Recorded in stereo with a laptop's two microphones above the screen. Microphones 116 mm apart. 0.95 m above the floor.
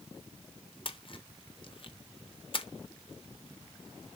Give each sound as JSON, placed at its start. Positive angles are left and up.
{"t": 0.8, "sound": "a splash", "side_deg": 50, "distance_m": 0.7}